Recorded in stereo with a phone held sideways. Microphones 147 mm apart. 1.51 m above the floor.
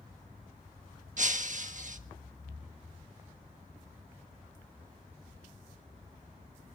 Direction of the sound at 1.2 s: 60° right (ahead or behind).